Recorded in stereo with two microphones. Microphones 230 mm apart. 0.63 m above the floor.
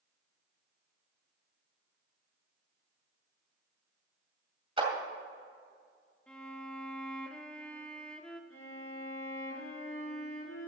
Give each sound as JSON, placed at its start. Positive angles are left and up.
{"t": 4.8, "sound": "a clap", "side_deg": -25, "distance_m": 2.5}
{"t": 6.3, "sound": "a violin", "side_deg": 5, "distance_m": 0.9}
{"t": 8.5, "sound": "a violin", "side_deg": 80, "distance_m": 3.5}